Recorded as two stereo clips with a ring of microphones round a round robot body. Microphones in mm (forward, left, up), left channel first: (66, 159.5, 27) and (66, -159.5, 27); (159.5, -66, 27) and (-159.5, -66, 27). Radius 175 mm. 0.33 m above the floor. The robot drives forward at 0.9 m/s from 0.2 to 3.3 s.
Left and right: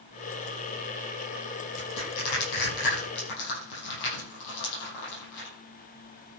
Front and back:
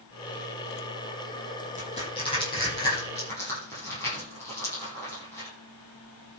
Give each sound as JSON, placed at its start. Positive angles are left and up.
{"t": 1.8, "sound": "crushing", "azimuth_deg": 75, "distance_m": 8.0}